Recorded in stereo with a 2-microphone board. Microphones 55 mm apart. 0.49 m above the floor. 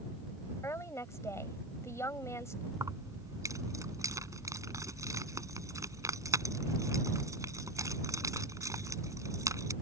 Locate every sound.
0.6 s a woman speaking: 60° left (ahead or behind)
2.7 s keys jangling: 80° right